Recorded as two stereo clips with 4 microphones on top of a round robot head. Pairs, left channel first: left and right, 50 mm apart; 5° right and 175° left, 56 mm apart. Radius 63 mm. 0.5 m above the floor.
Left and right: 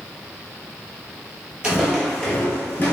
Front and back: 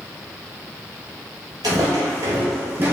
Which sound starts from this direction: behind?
Footsteps, at 1.6 s.